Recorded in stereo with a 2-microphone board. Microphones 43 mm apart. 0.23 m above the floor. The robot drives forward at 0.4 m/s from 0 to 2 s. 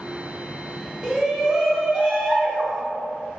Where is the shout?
5° right (ahead or behind), 1.5 m.